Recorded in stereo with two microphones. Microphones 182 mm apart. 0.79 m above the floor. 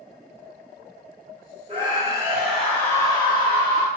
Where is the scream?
30° right (ahead or behind), 0.8 m; by 3.9 s 35° left (ahead or behind), 1.0 m.